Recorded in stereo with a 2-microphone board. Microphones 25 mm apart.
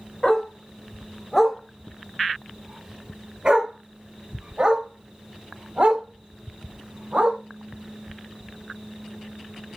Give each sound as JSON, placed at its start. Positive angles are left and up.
{"t": 0.2, "sound": "a dog barking", "side_deg": 30, "distance_m": 1.7}